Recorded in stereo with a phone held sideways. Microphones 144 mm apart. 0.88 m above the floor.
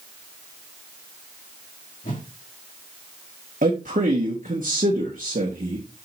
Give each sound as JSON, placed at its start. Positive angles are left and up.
{"t": 2.0, "sound": "a whoosh", "side_deg": 65, "distance_m": 2.5}
{"t": 3.6, "sound": "a man speaking", "side_deg": -65, "distance_m": 1.6}